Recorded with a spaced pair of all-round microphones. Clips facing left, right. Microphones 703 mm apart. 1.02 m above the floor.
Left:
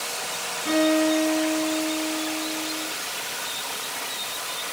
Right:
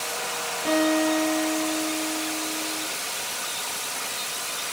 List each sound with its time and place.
0.7 s a guitar: 85° right, 9.5 m